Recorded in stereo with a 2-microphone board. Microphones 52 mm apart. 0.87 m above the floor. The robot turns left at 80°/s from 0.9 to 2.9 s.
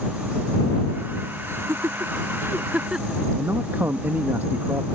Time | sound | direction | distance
1.5 | laughter | 50° right (ahead or behind) | ?
3.4 | a man speaking | 45° right (ahead or behind) | ?